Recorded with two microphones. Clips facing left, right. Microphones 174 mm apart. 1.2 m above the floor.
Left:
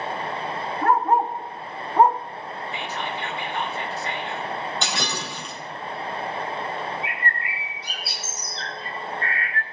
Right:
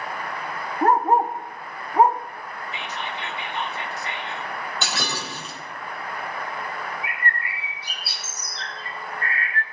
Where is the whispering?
20° right (ahead or behind), 3.5 m.